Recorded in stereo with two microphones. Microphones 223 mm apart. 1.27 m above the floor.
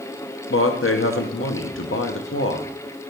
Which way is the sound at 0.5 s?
70° left (ahead or behind).